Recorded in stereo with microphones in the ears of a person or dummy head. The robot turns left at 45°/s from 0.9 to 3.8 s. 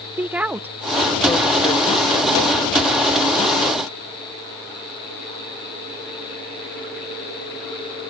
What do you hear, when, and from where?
0.2 s a woman speaking: 5° right (ahead or behind); by 2.6 s 70° left (ahead or behind)